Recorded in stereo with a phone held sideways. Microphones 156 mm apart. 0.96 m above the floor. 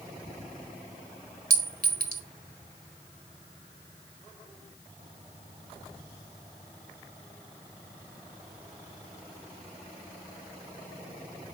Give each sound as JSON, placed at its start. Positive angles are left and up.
{"t": 1.5, "sound": "a clink", "side_deg": -65, "distance_m": 1.4}